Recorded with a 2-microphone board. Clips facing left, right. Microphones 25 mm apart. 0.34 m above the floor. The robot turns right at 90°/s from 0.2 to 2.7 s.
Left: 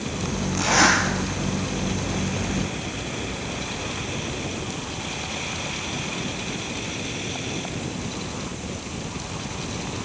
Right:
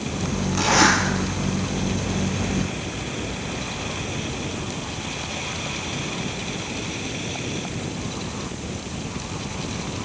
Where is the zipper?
25° right, 3.5 m; by 1.0 s 15° left, 3.5 m.